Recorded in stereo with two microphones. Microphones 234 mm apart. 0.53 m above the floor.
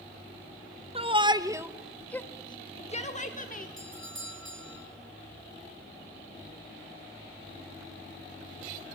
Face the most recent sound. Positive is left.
turn(degrees=-55)  # may be behind; listen again after turning